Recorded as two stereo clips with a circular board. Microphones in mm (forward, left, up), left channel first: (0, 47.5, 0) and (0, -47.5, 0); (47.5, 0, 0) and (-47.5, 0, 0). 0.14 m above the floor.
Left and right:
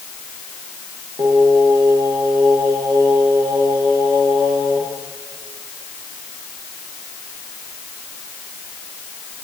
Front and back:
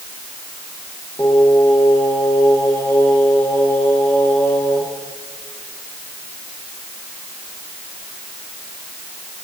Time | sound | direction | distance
1.2 | singing | 60° right | 6.5 m